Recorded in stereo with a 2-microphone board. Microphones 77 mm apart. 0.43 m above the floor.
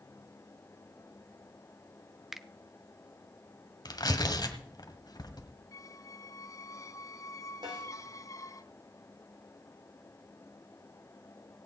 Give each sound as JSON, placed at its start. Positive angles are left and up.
{"t": 2.3, "sound": "a finger snap", "side_deg": -5, "distance_m": 0.6}
{"t": 3.9, "sound": "tearing paper", "side_deg": 60, "distance_m": 1.7}
{"t": 5.7, "sound": "a squeak", "side_deg": 45, "distance_m": 0.5}
{"t": 7.6, "sound": "a snare drum", "side_deg": -75, "distance_m": 6.5}